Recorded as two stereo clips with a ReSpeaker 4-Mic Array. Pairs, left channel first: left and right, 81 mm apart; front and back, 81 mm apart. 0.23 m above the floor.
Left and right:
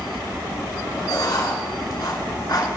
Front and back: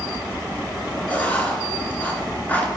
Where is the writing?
65° left, 2.5 m.